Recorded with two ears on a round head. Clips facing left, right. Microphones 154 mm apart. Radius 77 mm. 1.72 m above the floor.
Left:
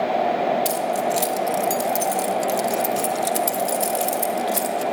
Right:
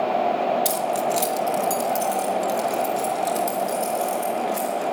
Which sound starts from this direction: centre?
Keys jangling, at 0.7 s.